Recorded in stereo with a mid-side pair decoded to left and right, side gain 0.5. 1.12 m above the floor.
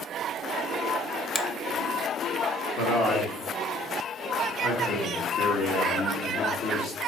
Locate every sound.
1.4 s a finger snap: 10° left, 0.5 m
2.8 s a man speaking: 65° left, 1.6 m